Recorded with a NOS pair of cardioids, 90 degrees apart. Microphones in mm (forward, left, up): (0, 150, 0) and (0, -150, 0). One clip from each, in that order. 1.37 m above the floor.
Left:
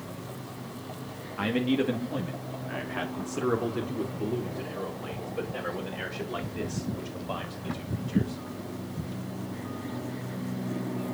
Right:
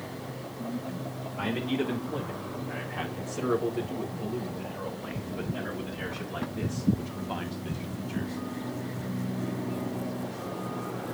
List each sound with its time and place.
1.4 s a man speaking: 50° left, 1.8 m; by 8.4 s 75° left, 6 m